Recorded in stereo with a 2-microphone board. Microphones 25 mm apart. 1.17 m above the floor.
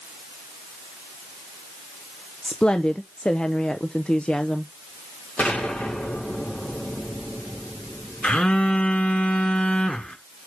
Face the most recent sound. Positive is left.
turn(degrees=50)  # may be behind; listen again after turning